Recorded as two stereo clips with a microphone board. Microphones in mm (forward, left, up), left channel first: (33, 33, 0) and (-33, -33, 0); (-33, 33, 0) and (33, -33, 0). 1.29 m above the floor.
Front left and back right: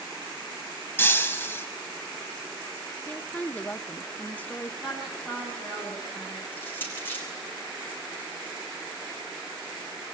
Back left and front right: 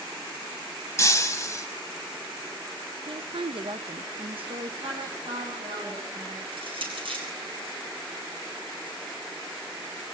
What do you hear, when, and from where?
1.0 s breaking glass: 100° left, 1.4 m
3.1 s a woman speaking: 30° right, 1.2 m
4.8 s a woman speaking: 50° right, 9.5 m
6.5 s crushing: 25° right, 8.5 m